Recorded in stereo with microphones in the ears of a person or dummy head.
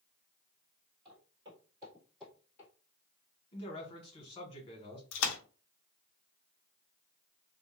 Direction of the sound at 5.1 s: 70° left (ahead or behind).